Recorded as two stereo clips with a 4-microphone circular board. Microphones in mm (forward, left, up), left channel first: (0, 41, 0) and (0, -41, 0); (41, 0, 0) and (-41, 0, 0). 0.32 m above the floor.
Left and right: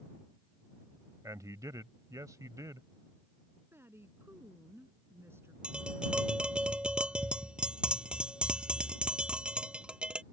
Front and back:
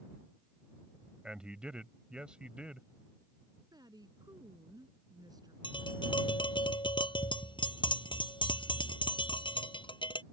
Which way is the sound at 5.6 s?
10° right.